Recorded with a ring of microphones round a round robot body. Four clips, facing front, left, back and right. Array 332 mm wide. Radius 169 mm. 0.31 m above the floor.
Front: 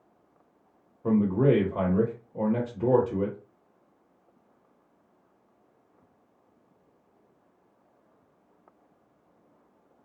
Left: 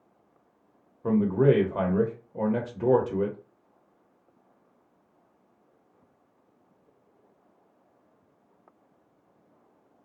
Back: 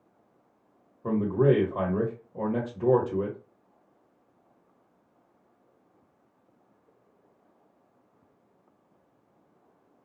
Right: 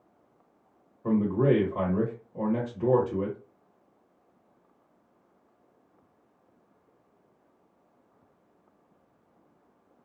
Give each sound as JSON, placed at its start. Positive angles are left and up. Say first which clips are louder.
{"t": 1.0, "sound": "a man speaking", "louder": "left 2 dB, even", "azimuth_deg": 90, "distance_m": 1.0}